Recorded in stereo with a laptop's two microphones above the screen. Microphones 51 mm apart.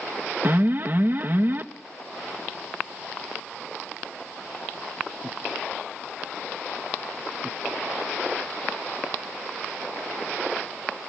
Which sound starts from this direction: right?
An alarm, at 0.4 s.